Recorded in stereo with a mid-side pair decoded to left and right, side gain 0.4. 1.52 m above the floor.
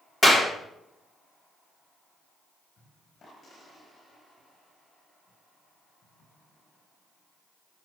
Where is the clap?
25° left, 3 m.